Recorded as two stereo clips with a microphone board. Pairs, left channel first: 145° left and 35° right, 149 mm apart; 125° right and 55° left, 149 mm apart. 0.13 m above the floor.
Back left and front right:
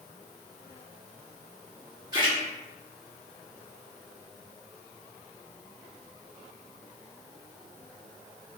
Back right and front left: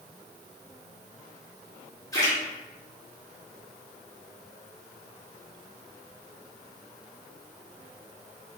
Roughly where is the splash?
Right.